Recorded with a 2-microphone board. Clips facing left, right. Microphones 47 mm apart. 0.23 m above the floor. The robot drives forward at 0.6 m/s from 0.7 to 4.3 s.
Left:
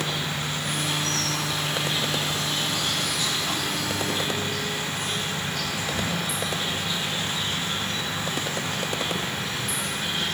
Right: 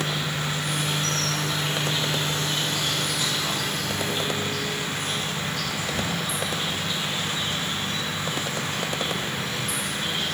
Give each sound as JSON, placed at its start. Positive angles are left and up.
{"t": 0.0, "sound": "an insect", "side_deg": -60, "distance_m": 4.0}